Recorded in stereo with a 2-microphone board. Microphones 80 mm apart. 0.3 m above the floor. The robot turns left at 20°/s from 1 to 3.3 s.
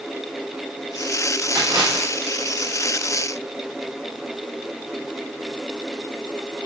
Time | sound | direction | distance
1.6 | a splash | 50° right (ahead or behind) | 7 m